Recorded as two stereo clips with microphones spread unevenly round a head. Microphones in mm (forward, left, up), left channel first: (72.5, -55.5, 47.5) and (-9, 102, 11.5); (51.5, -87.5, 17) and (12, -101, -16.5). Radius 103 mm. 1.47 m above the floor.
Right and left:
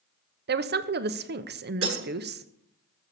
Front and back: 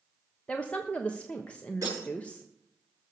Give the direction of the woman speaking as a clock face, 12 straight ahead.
9 o'clock.